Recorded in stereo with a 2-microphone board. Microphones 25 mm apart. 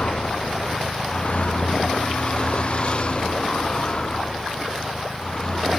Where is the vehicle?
60° left (ahead or behind); by 5.8 s 30° left (ahead or behind).